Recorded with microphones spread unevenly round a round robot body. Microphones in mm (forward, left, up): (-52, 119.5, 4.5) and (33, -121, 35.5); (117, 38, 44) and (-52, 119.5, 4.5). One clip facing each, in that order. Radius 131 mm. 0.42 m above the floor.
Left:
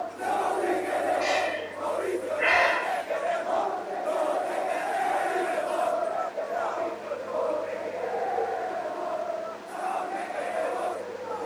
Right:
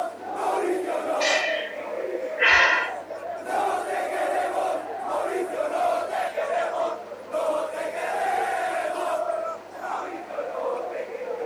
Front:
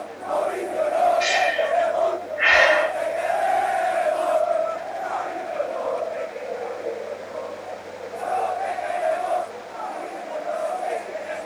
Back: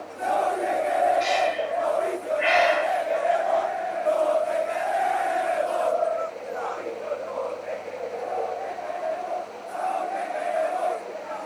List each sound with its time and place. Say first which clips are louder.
1.2 s breathing: right 2 dB, front 2 dB; 15° right, 1.3 m